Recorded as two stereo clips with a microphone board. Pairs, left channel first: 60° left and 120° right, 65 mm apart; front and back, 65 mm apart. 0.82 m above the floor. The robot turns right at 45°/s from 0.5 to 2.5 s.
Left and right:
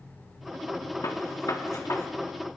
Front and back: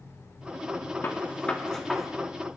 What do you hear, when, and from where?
1.0 s a gunshot: 50° left, 1.5 m; by 2.1 s 95° left, 1.5 m